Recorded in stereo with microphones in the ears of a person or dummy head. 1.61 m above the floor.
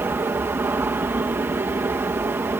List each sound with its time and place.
0.0 s an aircraft: 10° right (ahead or behind)